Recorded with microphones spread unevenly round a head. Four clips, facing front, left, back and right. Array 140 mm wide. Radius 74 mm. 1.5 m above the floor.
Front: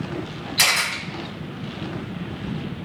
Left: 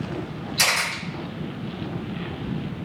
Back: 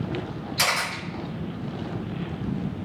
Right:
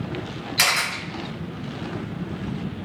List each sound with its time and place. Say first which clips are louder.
0.6 s a camera shutter: right 1 dB, front 2 dB; 75° right, 1.3 m